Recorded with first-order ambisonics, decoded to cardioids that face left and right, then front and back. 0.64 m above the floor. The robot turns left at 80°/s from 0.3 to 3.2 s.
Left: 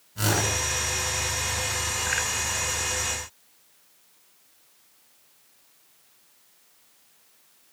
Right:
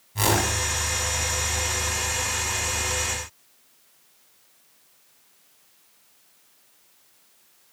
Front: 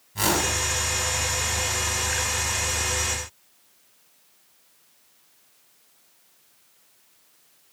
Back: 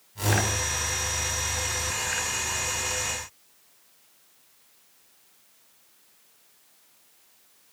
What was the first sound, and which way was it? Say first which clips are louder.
A whoosh: right 2 dB, front 3 dB; 55° right.